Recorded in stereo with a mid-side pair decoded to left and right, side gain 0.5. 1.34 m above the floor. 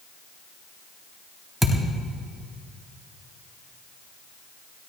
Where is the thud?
5° right, 3.5 m.